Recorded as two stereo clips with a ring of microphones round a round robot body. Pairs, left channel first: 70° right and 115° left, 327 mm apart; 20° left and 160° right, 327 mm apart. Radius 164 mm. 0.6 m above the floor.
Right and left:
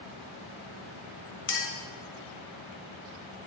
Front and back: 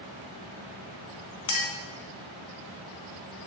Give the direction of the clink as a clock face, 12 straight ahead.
12 o'clock.